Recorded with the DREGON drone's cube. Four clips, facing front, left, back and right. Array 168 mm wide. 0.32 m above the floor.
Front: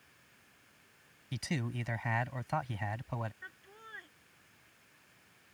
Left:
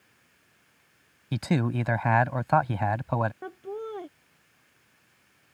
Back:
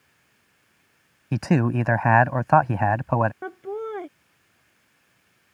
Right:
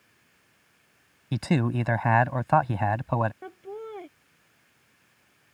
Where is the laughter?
170° left.